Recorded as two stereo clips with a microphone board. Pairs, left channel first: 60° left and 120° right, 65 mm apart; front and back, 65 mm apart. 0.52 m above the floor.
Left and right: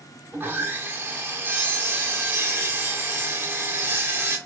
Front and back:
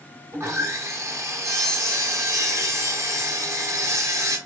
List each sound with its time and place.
0.3 s sawing: 165° right, 1.4 m